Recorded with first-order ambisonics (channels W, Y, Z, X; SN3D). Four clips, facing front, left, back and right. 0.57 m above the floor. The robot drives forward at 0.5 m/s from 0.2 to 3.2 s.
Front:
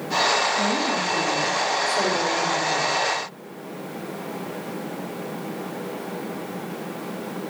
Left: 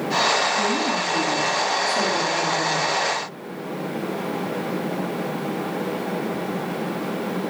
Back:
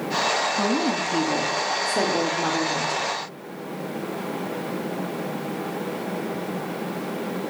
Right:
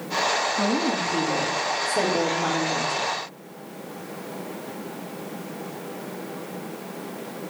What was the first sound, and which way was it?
A woman speaking, 160° right.